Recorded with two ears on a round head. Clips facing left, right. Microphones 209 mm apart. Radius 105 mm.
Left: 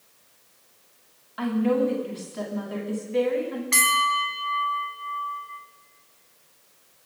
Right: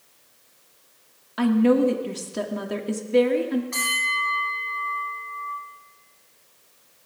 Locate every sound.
1.4 s a woman speaking: 55° right (ahead or behind), 1.6 m
3.7 s a bell: 65° left (ahead or behind), 1.9 m